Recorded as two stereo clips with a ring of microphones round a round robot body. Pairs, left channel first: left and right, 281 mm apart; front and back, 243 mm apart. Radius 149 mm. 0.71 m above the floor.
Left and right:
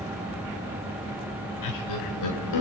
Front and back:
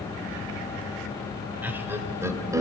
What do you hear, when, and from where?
1.6 s laughter: 100° left, 3 m; by 2.6 s 105° left, 3 m